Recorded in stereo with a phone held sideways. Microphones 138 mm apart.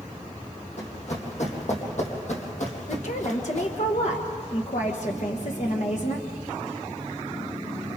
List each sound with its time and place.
0.8 s running footsteps: 55° left (ahead or behind), 4.5 m; by 3.7 s 60° left (ahead or behind), 3.5 m
2.9 s a woman speaking: 60° left (ahead or behind), 1.3 m